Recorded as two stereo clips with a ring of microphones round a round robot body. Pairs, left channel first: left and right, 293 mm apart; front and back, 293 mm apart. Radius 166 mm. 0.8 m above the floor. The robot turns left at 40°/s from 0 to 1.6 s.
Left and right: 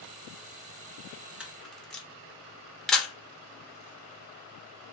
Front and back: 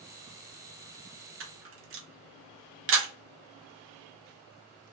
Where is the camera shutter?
175° right, 0.9 m; by 3.1 s 175° left, 0.9 m.